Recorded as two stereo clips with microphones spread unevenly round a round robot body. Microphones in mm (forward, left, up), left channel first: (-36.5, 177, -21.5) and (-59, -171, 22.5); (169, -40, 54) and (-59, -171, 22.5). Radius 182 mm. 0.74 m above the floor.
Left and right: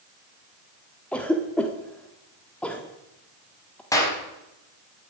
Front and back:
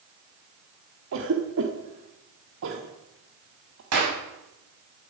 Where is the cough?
170° left, 1.5 m.